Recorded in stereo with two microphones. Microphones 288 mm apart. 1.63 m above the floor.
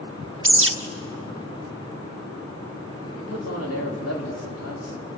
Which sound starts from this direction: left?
A man speaking, at 3.1 s.